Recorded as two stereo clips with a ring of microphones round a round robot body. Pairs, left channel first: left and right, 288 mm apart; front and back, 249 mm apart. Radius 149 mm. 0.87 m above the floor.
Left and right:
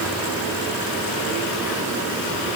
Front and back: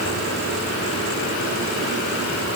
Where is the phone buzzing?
I don't hear a phone buzzing.